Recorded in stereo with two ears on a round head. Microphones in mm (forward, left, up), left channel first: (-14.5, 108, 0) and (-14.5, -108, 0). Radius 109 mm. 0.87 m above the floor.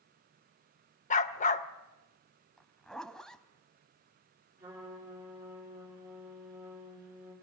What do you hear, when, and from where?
1.1 s a dog barking: 30° left (ahead or behind), 0.6 m
2.6 s a zipper: centre (ahead or behind), 0.9 m
4.6 s a trumpet: 10° right (ahead or behind), 8.5 m